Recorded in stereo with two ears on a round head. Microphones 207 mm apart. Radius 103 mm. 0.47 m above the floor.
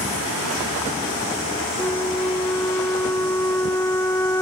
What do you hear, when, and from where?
1.8 s a flute: 10° left (ahead or behind)